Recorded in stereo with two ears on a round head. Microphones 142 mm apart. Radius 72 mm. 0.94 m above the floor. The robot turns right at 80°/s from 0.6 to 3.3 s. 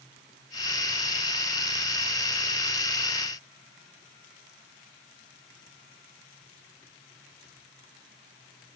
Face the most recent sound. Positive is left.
No sound to turn to.